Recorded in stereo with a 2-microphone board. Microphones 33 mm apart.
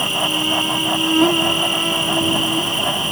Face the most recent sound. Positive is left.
turn(degrees=0)  # may be behind; listen again after turning